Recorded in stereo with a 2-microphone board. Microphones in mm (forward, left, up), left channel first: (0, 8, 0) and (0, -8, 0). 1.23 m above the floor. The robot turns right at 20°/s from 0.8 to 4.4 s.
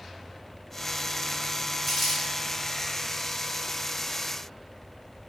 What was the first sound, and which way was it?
Crumpling, centre (ahead or behind).